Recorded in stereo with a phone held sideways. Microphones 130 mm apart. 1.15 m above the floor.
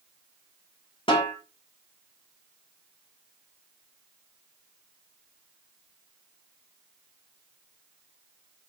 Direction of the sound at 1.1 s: 40° left (ahead or behind).